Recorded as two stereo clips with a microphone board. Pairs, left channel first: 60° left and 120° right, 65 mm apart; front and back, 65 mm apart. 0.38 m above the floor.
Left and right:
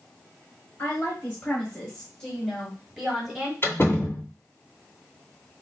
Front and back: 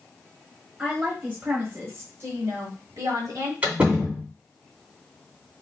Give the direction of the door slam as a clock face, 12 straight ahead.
8 o'clock.